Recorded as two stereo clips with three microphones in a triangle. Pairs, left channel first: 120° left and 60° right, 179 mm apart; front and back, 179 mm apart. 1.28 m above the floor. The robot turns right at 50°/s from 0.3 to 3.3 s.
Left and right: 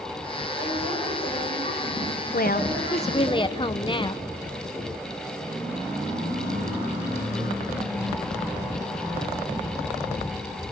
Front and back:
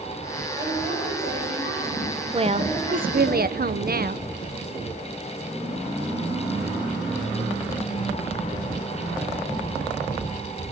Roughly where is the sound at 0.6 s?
Behind left.